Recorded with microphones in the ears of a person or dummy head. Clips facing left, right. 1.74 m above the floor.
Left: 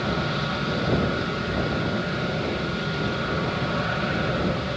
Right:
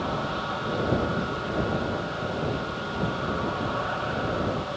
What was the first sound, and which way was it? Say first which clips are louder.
An aircraft: left 3 dB; 35° left (ahead or behind).